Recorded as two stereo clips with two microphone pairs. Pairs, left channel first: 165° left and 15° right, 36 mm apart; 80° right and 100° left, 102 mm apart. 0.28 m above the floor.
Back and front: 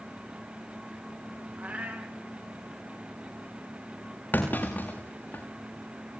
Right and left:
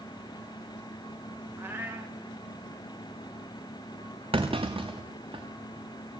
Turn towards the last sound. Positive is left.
turn(degrees=125)